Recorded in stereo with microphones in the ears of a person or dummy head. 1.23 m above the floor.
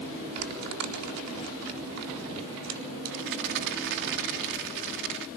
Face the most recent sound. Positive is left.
turn(degrees=-60)  # may be behind; listen again after turning